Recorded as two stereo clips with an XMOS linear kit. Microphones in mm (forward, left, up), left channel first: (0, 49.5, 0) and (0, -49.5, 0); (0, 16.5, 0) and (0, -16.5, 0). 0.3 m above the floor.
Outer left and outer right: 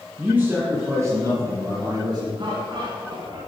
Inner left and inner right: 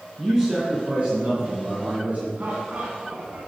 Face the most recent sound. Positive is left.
turn(degrees=-50)  # may be behind; listen again after turning